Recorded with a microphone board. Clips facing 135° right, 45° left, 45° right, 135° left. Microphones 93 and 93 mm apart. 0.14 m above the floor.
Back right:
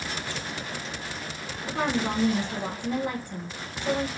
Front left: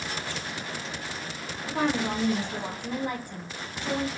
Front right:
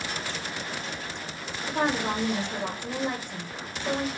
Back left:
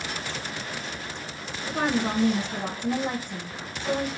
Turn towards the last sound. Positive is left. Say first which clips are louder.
# even, back left 1 dB
turn(degrees=130)